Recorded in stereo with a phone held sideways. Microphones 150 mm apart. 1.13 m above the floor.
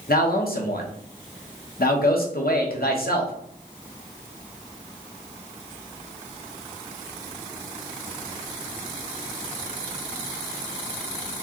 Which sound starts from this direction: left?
A man speaking, at 0.1 s.